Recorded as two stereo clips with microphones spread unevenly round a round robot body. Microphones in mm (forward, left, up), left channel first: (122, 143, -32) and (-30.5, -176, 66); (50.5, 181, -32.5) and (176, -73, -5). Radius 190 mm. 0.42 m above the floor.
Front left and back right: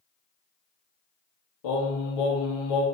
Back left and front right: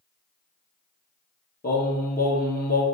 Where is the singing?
55° left, 3 m.